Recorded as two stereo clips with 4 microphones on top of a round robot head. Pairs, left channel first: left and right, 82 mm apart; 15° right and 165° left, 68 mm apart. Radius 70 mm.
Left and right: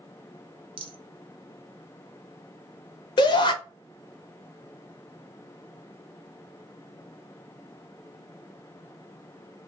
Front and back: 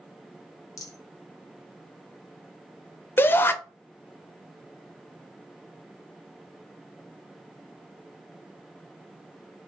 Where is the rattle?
60° right, 0.7 m.